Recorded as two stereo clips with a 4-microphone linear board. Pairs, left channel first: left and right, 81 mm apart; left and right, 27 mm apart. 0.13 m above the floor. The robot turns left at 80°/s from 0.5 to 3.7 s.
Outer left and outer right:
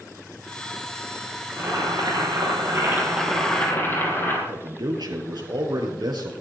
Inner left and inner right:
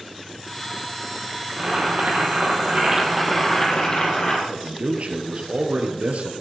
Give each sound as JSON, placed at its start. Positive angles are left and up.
{"t": 1.5, "sound": "boiling", "azimuth_deg": -30, "distance_m": 5.0}
{"t": 4.5, "sound": "a man speaking", "side_deg": -60, "distance_m": 3.0}